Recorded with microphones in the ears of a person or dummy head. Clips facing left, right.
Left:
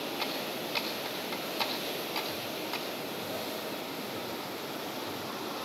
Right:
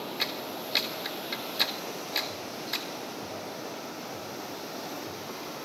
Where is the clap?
15° right (ahead or behind), 3 m.